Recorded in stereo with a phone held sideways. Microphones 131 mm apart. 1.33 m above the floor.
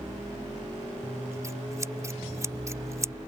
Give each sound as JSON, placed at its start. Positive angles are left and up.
{"t": 1.0, "sound": "scissors", "side_deg": -25}